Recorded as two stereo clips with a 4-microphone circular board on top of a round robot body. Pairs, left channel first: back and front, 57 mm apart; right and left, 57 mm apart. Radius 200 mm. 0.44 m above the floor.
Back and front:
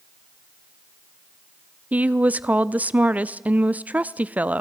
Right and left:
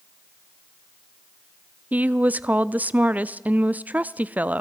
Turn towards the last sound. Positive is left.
turn(degrees=45)